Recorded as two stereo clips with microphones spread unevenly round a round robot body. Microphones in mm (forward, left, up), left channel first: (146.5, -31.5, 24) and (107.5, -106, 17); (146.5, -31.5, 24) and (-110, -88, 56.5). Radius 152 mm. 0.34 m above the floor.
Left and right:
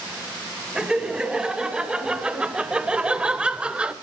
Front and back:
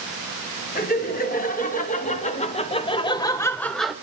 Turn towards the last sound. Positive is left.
turn(degrees=-65)